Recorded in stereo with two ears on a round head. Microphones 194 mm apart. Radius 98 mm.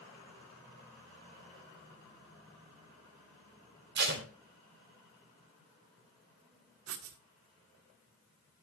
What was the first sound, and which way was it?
Tape being pulled, 55° right (ahead or behind).